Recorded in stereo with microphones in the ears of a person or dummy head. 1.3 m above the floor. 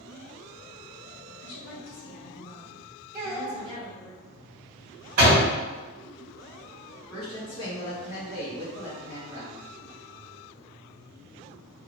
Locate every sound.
1.4 s a woman speaking: 70° left (ahead or behind), 0.8 m; by 4.1 s 20° left (ahead or behind), 1.8 m
3.1 s a child speaking: 45° right (ahead or behind), 1.0 m
5.2 s a door slam: 45° right (ahead or behind), 1.6 m
7.1 s a woman speaking: 25° left (ahead or behind), 1.9 m